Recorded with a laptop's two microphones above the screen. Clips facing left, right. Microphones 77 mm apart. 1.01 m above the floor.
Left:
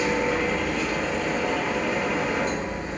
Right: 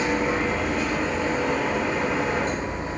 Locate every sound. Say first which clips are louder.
0.0 s a machine running: even; 35° right (ahead or behind), 0.8 m